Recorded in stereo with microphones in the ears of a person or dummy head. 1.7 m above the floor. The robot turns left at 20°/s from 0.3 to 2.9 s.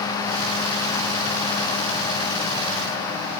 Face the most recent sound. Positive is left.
No sound to turn to.